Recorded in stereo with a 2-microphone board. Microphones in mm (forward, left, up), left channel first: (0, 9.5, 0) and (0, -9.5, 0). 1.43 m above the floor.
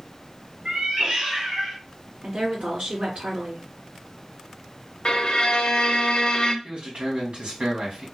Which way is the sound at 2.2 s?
85° right.